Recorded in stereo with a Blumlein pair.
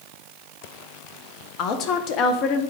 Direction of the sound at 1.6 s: 35° left.